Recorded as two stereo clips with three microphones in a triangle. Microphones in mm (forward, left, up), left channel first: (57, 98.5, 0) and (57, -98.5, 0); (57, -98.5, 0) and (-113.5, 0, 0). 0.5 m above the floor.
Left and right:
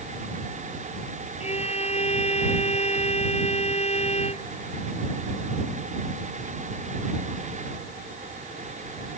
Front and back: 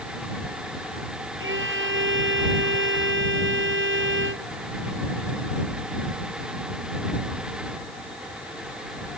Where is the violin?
145° left.